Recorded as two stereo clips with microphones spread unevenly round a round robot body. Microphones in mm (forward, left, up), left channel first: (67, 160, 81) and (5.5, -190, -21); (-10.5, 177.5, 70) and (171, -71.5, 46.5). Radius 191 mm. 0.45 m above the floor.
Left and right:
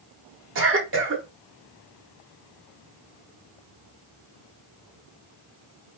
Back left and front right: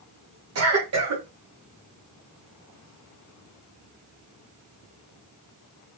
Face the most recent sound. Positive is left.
turn(degrees=-70)